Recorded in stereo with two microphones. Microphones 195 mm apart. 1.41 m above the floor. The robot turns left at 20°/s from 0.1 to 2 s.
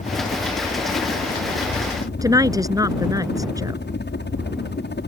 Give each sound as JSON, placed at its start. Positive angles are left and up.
{"t": 0.0, "sound": "a helicopter", "azimuth_deg": 135}
{"t": 2.2, "sound": "a woman speaking", "side_deg": -20}